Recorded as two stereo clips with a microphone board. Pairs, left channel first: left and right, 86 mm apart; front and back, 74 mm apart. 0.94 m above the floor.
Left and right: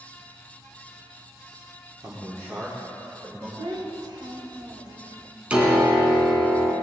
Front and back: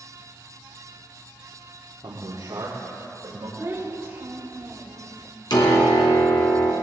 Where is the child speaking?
120° right, 2.5 m.